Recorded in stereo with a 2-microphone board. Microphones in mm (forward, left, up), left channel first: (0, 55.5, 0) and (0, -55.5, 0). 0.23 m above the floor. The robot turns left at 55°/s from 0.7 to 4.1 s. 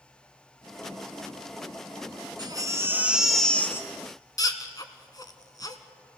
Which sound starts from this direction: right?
A baby crying, at 2.4 s.